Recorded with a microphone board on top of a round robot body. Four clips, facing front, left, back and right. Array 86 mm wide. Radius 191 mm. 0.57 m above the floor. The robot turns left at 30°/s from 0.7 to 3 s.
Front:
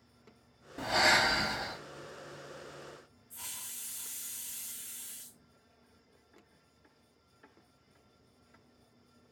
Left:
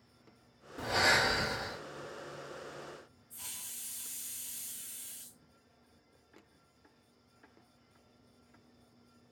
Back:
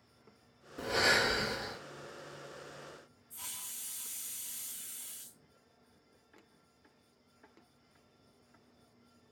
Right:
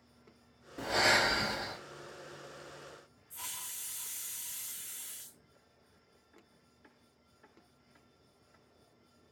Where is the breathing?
10° left, 1.9 m; by 1.8 s 20° right, 1.9 m.